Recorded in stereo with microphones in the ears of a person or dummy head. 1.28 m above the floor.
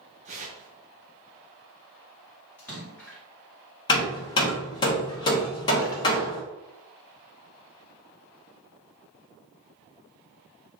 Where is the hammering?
20° left (ahead or behind), 1.1 m.